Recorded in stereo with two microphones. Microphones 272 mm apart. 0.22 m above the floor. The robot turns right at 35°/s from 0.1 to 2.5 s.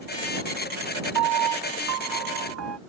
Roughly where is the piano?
Right.